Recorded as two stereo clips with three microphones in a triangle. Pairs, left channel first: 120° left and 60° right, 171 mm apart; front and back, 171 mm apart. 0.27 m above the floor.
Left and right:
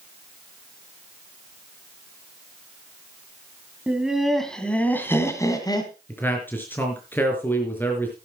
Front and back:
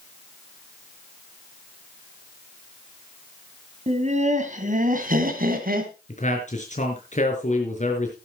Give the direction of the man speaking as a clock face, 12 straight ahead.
11 o'clock.